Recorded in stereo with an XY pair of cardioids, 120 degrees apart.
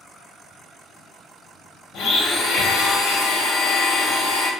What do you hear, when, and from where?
1.9 s a blender: 70° left, 0.7 m